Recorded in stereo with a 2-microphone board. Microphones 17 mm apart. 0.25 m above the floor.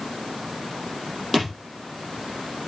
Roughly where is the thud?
Centre.